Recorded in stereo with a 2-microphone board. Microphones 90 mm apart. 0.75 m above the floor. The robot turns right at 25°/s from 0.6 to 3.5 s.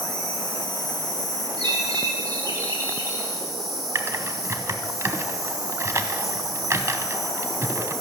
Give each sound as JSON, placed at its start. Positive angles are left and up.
{"t": 0.0, "sound": "an insect", "azimuth_deg": 105, "distance_m": 3.0}
{"t": 1.6, "sound": "a bird", "azimuth_deg": -65, "distance_m": 2.5}
{"t": 4.0, "sound": "typing on a keyboard", "side_deg": -30, "distance_m": 0.8}